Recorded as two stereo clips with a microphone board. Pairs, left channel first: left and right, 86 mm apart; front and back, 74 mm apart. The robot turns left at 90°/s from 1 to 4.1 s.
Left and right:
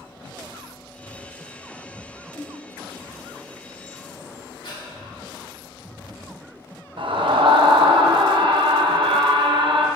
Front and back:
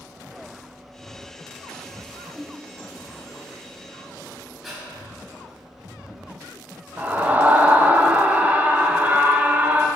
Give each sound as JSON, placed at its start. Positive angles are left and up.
{"t": 2.3, "sound": "a whoosh", "azimuth_deg": 100, "distance_m": 1.2}
{"t": 4.6, "sound": "breathing", "azimuth_deg": 90, "distance_m": 3.0}
{"t": 7.0, "sound": "a scream", "azimuth_deg": -110, "distance_m": 1.2}